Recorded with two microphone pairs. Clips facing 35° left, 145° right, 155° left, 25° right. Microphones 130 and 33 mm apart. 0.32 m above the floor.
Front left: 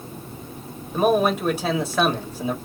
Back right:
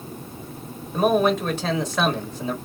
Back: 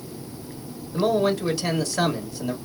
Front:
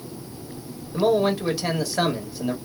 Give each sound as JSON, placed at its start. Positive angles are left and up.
{"t": 0.9, "sound": "a man speaking", "azimuth_deg": -35, "distance_m": 1.1}